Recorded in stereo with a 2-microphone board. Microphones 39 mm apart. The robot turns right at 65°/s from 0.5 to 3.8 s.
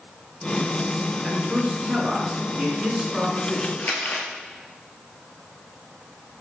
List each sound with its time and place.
1.2 s a man speaking: 15° right (ahead or behind), 1.5 m; by 3.7 s 10° left (ahead or behind), 1.5 m
3.8 s crumpling: 55° left (ahead or behind), 1.1 m